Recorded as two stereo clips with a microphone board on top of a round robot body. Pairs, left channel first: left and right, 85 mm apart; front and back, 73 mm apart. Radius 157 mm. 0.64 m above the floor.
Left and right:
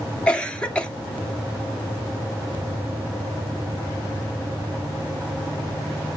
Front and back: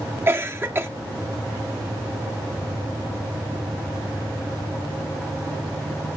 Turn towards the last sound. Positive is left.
turn(degrees=160)